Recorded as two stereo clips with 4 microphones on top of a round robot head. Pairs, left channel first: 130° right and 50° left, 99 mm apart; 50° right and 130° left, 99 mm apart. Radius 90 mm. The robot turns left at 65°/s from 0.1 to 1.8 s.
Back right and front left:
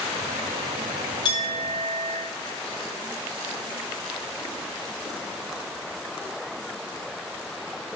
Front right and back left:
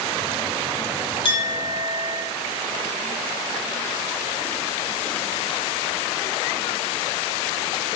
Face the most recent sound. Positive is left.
turn(degrees=-125)